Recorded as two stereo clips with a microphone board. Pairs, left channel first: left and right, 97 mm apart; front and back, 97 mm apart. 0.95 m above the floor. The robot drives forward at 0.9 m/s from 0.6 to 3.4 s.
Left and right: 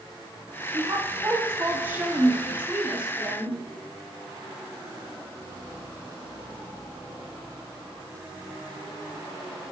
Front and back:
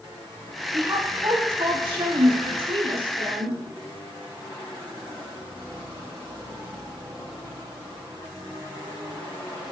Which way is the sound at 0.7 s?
135° right.